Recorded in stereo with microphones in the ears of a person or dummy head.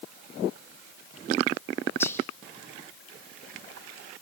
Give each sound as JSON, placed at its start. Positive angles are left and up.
{"t": 2.0, "sound": "whispering", "side_deg": 15, "distance_m": 2.0}